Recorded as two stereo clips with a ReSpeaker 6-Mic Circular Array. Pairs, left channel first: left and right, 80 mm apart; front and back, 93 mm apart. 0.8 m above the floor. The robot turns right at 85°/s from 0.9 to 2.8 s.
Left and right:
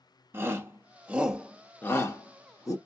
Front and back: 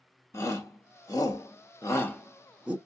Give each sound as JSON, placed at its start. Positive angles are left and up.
{"t": 0.3, "sound": "a shout", "azimuth_deg": -45, "distance_m": 0.9}